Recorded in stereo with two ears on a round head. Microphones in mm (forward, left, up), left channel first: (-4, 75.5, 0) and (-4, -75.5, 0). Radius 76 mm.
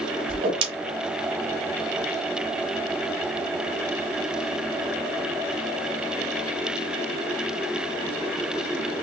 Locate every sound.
0.3 s a whoosh: 30° right (ahead or behind), 1.0 m